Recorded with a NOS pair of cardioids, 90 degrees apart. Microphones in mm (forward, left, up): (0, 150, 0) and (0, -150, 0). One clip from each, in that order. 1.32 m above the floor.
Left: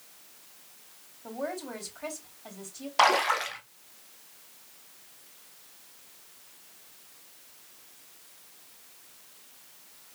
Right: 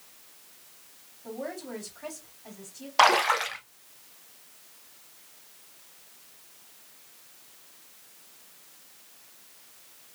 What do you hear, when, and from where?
1.2 s a woman speaking: 25° left, 3.5 m
3.0 s a splash: 15° right, 0.9 m